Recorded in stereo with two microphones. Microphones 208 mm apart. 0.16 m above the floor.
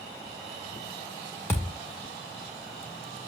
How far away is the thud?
About 3.5 m.